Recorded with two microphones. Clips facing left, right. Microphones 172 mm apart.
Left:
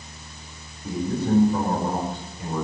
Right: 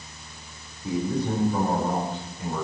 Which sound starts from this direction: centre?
A man speaking, at 0.8 s.